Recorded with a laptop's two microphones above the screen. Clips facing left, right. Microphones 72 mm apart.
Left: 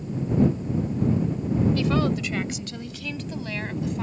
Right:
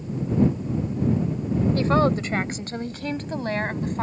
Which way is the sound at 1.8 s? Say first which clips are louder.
Right 3 dB; 35° right (ahead or behind).